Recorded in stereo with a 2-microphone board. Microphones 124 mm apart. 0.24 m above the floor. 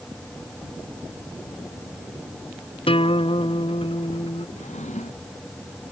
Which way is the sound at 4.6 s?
70° left (ahead or behind).